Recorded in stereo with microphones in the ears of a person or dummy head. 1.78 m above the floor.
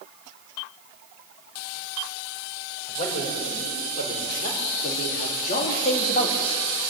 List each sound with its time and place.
2.9 s a man speaking: 45° left (ahead or behind), 6.5 m; by 6.6 s 55° left (ahead or behind), 2.5 m